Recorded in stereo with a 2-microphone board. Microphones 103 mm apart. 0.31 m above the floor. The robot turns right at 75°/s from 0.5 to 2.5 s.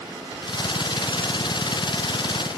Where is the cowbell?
I don't hear a cowbell.